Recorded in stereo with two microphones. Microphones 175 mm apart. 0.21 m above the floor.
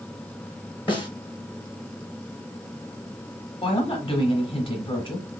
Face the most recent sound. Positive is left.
turn(degrees=30)  # may be behind; listen again after turning